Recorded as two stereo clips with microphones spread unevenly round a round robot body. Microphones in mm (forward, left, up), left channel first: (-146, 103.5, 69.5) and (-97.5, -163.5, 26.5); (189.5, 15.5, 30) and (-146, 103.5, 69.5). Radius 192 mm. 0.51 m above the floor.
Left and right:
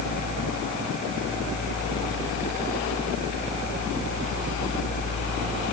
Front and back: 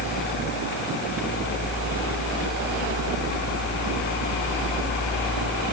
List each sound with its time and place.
Only background noise.